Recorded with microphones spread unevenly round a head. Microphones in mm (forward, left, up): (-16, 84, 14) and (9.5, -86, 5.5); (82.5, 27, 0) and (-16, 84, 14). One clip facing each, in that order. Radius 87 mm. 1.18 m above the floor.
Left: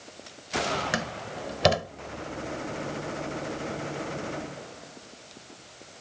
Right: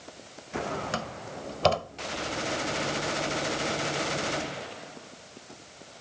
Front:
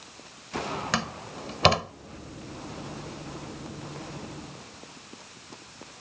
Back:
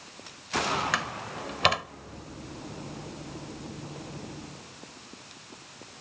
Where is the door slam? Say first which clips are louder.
Left 2 dB, front 1 dB; 25° left.